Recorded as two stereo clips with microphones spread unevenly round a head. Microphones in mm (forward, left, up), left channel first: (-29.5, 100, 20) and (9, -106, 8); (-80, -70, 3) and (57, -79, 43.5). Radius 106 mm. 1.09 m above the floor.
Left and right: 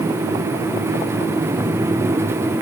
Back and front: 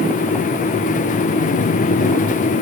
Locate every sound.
Only background noise.